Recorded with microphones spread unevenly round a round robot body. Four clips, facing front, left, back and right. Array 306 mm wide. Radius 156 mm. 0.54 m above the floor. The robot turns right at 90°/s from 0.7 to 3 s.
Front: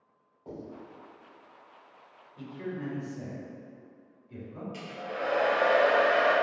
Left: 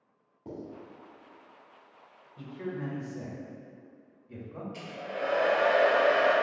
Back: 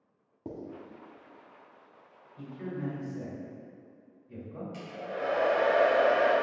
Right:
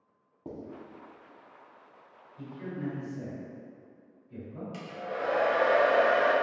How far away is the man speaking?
About 1.6 m.